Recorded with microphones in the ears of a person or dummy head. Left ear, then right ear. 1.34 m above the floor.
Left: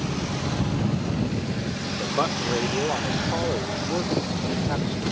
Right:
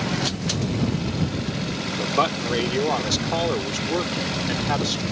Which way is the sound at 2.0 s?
80° right.